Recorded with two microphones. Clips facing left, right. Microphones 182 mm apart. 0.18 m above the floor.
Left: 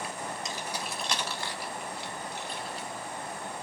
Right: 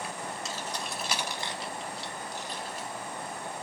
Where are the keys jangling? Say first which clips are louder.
Even; 20° left (ahead or behind), 0.7 m; by 2.9 s 45° right (ahead or behind), 1.3 m.